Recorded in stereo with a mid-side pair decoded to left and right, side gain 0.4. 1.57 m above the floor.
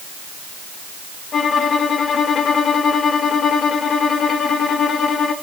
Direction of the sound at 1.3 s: 55° left.